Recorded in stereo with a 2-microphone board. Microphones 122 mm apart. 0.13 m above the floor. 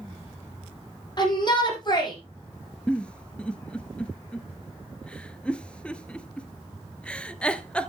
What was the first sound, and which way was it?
A shout, 40° left (ahead or behind).